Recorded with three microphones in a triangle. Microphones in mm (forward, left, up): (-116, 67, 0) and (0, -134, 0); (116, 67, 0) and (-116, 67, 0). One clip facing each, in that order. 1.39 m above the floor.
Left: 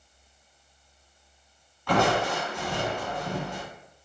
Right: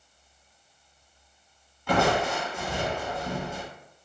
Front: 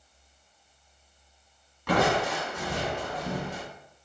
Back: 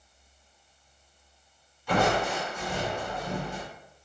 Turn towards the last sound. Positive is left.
turn(degrees=20)